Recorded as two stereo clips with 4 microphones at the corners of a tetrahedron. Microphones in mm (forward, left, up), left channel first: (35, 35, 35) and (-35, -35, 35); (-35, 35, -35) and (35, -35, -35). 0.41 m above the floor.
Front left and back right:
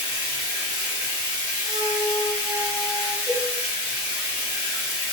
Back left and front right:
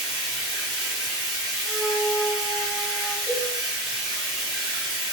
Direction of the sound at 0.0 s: Straight behind.